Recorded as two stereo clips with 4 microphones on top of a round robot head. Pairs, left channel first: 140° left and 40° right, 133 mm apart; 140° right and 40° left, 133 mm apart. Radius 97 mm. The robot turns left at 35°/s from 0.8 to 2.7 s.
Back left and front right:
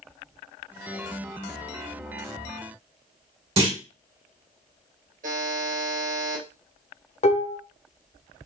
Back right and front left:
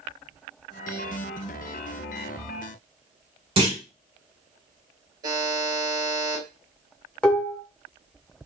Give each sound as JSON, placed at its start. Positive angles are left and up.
{"t": 3.6, "sound": "a clunk", "azimuth_deg": 0, "distance_m": 2.0}
{"t": 5.2, "sound": "a buzzer", "azimuth_deg": -20, "distance_m": 2.5}
{"t": 7.2, "sound": "dishes clattering", "azimuth_deg": 140, "distance_m": 1.0}